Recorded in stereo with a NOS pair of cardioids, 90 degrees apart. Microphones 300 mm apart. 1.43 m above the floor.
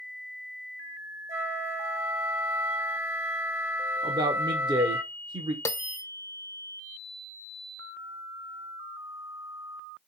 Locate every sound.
1.3 s a flute: 40° right, 1.3 m
4.0 s a man speaking: 15° right, 0.6 m
5.7 s a bell: 10° left, 0.5 m